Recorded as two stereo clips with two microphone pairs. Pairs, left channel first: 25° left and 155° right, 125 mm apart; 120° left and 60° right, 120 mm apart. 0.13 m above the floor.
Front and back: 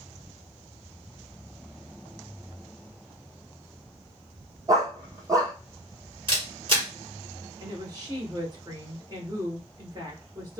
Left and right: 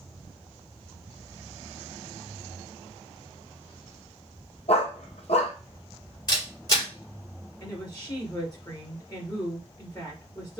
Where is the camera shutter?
165° left, 3 m.